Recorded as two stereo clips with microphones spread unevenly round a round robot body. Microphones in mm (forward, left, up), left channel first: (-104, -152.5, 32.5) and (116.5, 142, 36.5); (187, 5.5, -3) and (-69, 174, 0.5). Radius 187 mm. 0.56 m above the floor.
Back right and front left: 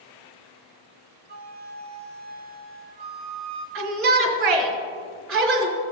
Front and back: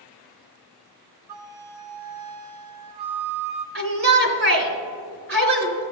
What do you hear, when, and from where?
1.3 s a flute: 120° left, 1.6 m
3.8 s a shout: 110° left, 2.5 m